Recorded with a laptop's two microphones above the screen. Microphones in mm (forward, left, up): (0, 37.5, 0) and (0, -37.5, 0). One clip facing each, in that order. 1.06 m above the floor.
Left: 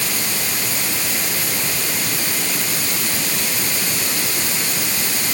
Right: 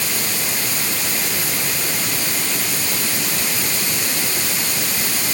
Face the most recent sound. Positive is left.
No sound to turn to.